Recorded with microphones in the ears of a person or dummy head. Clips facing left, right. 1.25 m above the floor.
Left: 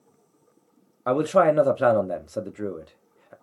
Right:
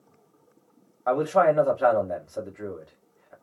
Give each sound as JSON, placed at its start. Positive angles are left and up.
{"t": 1.1, "sound": "a man speaking", "side_deg": 40, "distance_m": 0.6}